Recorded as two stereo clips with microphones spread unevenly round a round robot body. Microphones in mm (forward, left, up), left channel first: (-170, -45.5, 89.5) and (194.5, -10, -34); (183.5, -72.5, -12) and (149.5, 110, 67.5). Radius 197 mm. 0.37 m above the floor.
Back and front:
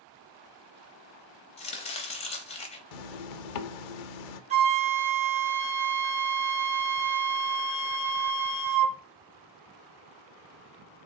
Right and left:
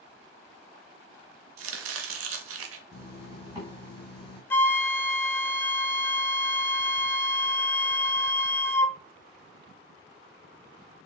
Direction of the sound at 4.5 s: 35° right.